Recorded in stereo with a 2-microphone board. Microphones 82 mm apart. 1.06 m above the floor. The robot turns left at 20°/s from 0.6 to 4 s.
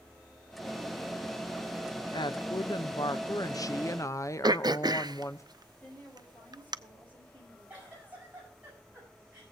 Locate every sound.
2.1 s a woman speaking: 80° left, 0.7 m; by 5.4 s 40° left, 0.7 m
4.4 s throat clearing: 55° right (ahead or behind), 0.5 m
5.8 s a woman speaking: 20° left (ahead or behind), 7 m
7.7 s a giggle: 20° right (ahead or behind), 8.5 m